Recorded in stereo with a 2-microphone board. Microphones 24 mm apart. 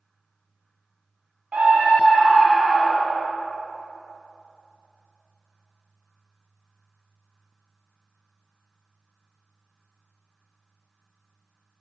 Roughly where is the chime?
No chime in this recording.